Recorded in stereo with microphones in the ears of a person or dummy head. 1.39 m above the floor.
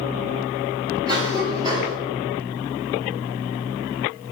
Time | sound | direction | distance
1.1 | a cough | 25° right (ahead or behind) | 3.5 m